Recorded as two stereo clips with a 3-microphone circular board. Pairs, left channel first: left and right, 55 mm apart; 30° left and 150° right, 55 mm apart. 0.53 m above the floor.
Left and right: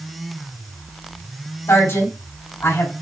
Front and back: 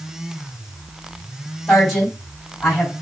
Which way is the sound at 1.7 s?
105° left.